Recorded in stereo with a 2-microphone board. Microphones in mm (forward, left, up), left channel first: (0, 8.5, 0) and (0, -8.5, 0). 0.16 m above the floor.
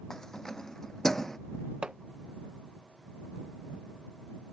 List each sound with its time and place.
0.1 s keys jangling: 30° left (ahead or behind); by 1.4 s 25° left (ahead or behind)
1.8 s hammering: 60° right (ahead or behind)